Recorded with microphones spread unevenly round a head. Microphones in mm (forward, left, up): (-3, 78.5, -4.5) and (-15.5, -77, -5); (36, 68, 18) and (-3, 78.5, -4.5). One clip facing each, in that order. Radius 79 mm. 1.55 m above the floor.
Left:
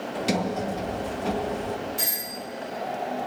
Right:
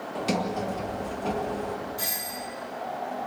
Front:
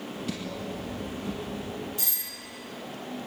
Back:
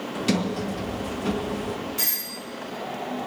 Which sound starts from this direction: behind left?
A doorbell, at 2.0 s.